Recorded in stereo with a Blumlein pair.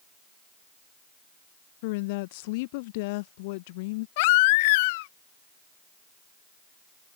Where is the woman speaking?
50° left.